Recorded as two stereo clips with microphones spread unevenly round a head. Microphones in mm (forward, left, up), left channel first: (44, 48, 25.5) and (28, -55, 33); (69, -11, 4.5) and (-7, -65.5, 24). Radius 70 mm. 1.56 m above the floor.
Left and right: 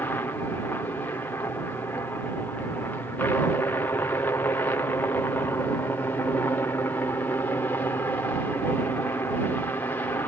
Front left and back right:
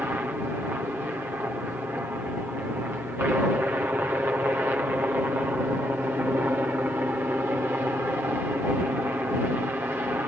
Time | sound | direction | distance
0.0 | a helicopter | 140° left | ?